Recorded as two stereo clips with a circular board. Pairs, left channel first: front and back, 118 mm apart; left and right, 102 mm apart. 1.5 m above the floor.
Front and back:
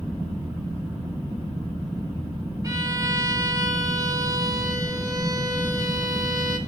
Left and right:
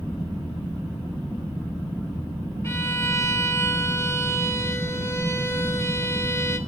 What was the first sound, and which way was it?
A violin, 140° left.